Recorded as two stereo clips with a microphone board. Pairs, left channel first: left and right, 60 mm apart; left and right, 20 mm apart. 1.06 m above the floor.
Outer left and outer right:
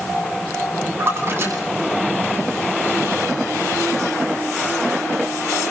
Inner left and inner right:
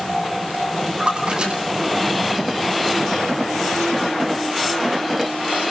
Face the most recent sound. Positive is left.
turn(degrees=-40)  # may be behind; listen again after turning